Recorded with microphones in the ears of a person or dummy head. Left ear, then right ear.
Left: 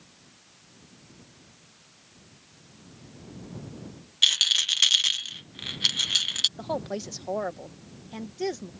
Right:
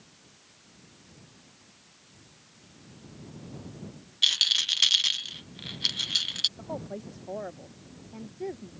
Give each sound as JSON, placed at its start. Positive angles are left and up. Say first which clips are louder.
{"t": 4.2, "sound": "a rattle", "louder": "left 2 dB", "side_deg": 15}
{"t": 6.6, "sound": "a woman speaking", "louder": "left 6 dB", "side_deg": 80}